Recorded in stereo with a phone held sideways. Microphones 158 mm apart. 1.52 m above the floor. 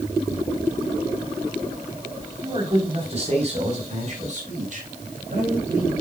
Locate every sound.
2.4 s a man speaking: 30° right (ahead or behind), 3.5 m; by 5.9 s 55° right (ahead or behind), 7.5 m